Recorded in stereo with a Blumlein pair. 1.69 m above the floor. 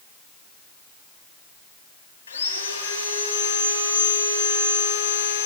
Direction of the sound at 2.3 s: 70° left.